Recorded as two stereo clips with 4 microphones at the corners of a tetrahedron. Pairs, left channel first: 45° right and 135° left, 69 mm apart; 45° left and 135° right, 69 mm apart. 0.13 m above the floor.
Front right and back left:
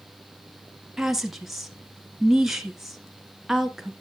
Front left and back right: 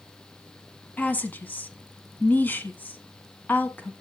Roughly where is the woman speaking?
Ahead left.